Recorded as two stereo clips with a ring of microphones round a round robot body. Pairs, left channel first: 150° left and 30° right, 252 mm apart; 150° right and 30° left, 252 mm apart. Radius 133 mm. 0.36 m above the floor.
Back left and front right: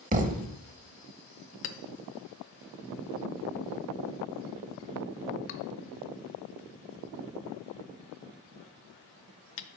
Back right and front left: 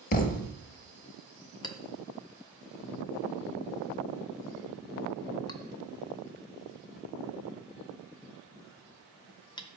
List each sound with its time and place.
0.1 s a thud: 90° right, 0.7 m
1.6 s a clink: 140° left, 0.7 m